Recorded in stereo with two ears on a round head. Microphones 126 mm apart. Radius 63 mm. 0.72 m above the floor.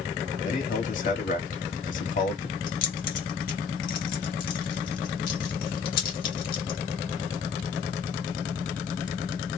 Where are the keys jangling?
70° left (ahead or behind), 1.2 m.